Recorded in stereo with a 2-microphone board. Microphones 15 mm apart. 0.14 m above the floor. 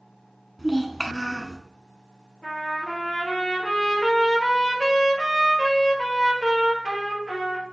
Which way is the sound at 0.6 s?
Centre (ahead or behind).